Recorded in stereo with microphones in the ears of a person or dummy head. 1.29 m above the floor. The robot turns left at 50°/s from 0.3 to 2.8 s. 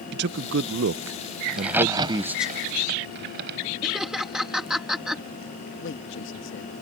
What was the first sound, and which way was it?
A man speaking, 65° right.